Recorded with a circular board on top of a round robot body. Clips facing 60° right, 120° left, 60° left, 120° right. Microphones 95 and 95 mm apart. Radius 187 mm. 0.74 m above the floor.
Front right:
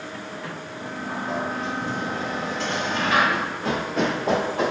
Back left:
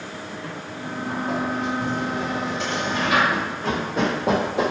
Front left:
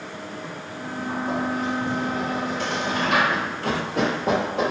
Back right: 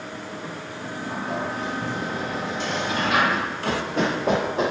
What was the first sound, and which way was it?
A sliding door, 55° left.